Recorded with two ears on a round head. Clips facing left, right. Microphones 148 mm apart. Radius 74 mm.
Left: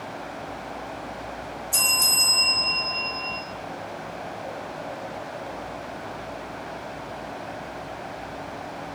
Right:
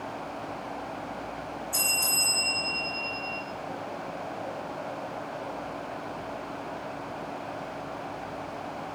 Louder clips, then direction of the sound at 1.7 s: Left 3 dB; 50° left (ahead or behind).